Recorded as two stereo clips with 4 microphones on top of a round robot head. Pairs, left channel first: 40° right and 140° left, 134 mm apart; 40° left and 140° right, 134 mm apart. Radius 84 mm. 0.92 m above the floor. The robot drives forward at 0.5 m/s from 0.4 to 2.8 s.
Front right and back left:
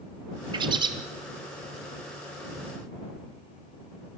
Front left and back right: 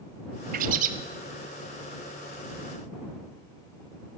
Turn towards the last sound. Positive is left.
turn(degrees=-170)